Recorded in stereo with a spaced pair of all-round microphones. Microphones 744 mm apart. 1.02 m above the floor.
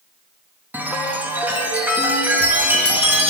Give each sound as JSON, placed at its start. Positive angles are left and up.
{"t": 0.7, "sound": "a chime", "side_deg": 0, "distance_m": 1.8}